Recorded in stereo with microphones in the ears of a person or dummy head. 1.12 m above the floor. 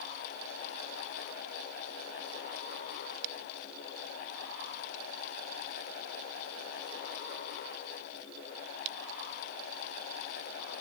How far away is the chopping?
No chopping in this recording.